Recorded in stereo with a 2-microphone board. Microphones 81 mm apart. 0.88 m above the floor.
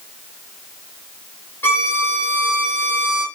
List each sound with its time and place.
1.6 s a violin: 25° left (ahead or behind), 1.3 m